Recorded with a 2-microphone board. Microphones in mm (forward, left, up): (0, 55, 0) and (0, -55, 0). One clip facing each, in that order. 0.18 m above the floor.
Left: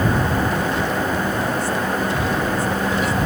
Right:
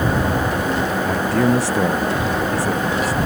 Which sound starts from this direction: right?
A man speaking, at 1.0 s.